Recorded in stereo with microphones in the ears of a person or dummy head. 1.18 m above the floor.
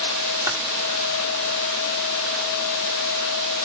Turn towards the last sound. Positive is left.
turn(degrees=-20)  # may be behind; listen again after turning